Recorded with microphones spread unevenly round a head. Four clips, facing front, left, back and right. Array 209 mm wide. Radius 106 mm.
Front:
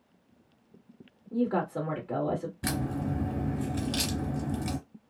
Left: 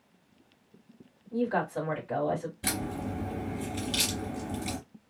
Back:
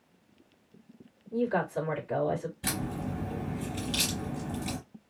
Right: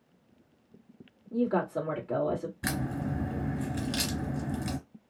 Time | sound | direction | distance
1.3 | a woman speaking | 15° right | 1.7 m
2.6 | a crack | 15° right | 2 m